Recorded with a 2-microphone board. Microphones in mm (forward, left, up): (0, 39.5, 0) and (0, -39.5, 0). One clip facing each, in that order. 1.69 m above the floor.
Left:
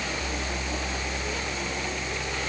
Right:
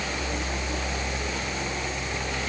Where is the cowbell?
I don't hear a cowbell.